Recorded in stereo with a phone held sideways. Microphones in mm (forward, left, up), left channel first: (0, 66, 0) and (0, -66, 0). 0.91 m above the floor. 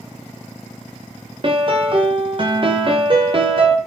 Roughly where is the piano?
Right.